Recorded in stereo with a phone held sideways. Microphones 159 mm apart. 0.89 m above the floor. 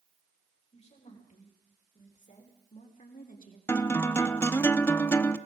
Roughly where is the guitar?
Centre.